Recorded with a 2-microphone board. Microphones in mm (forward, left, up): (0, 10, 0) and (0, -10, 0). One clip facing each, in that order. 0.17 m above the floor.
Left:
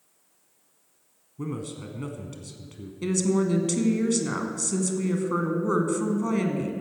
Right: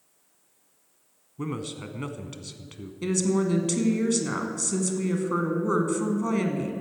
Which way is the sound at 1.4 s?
30° right (ahead or behind).